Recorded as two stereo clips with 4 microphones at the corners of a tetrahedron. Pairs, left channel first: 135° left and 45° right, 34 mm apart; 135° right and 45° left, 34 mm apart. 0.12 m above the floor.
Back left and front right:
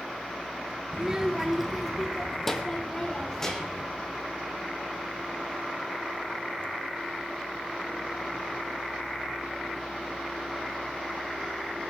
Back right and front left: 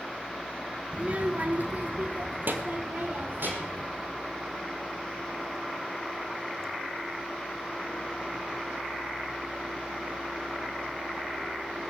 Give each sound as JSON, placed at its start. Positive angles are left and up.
{"t": 0.9, "sound": "a child speaking", "azimuth_deg": 5, "distance_m": 0.9}